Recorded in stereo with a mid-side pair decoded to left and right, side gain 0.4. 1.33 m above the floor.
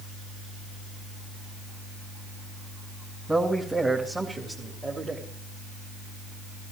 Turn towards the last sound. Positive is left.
turn(degrees=-35)